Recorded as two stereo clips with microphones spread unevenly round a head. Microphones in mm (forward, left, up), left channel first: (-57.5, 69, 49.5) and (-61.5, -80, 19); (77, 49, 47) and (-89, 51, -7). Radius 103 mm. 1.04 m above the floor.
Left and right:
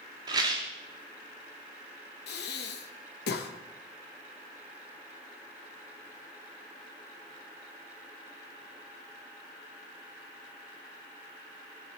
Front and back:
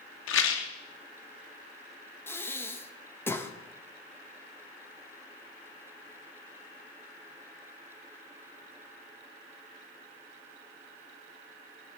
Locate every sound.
0.3 s a rattle: 20° right, 1.3 m
2.3 s breathing: 80° left, 1.2 m